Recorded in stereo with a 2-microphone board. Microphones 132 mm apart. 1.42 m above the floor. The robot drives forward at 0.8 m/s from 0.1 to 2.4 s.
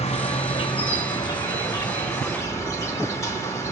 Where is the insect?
50° left (ahead or behind), 1.3 m; by 3.7 s 20° left (ahead or behind), 2.5 m.